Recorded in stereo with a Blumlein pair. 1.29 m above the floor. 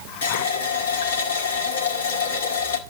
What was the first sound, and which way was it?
A running tap, 65° left.